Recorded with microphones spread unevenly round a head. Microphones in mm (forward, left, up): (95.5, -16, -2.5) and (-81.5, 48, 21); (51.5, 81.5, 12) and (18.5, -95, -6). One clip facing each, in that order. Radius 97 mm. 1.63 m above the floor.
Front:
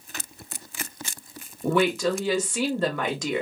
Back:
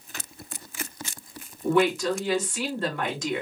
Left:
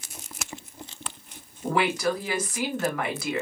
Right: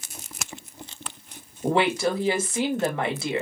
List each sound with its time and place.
1.6 s a woman speaking: 35° right, 0.9 m